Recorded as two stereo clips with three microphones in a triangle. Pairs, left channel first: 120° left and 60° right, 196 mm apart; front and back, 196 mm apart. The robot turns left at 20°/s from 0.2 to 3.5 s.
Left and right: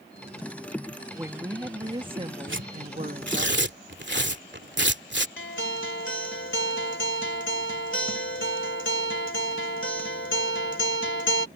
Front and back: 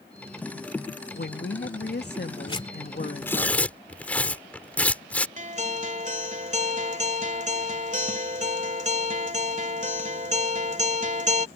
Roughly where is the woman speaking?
Ahead.